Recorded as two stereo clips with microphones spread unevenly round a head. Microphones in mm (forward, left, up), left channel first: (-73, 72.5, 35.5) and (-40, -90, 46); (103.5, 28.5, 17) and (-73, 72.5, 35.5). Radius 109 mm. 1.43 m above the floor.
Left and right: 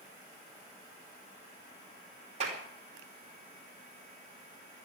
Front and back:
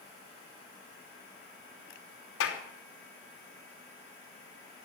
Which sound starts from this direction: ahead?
A clap, at 2.4 s.